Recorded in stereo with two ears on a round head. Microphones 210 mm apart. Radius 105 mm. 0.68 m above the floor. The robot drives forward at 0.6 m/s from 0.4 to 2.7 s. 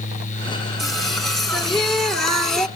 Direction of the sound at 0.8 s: Centre (ahead or behind).